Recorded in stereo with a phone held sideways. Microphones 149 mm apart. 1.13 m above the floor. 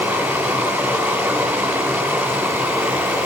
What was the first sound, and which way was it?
Running water, 15° right (ahead or behind).